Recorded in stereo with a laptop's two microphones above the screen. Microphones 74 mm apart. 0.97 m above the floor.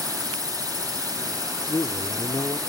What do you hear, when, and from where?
0.0 s a drone: 60° right (ahead or behind)
1.7 s a man speaking: 55° left (ahead or behind)